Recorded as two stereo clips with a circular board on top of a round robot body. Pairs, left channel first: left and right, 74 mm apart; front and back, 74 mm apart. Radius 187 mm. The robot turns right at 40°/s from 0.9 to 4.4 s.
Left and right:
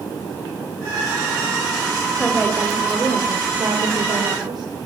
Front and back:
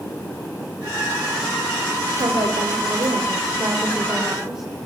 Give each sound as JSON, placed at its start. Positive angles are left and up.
{"t": 2.2, "sound": "a woman speaking", "azimuth_deg": 170, "distance_m": 3.0}